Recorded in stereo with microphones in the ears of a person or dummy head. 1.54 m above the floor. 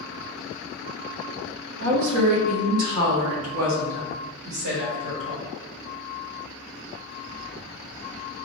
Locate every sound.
1.8 s a woman speaking: 65° right (ahead or behind), 1.0 m; by 5.5 s 60° right (ahead or behind), 2.5 m